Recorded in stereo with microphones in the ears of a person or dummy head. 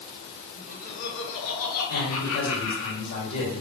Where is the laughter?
40° left (ahead or behind), 0.8 m; by 2.9 s 70° left (ahead or behind), 1.3 m.